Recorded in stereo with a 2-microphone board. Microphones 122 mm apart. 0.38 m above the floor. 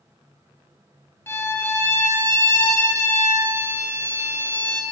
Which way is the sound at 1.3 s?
20° left (ahead or behind).